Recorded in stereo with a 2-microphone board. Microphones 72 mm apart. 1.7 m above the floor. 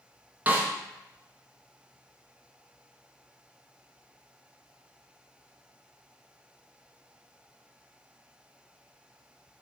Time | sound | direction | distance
0.5 | a snare drum | 20° right (ahead or behind) | 0.6 m